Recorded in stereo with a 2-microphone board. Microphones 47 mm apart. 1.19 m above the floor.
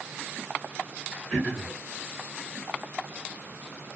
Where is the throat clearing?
20° left (ahead or behind), 2.5 m.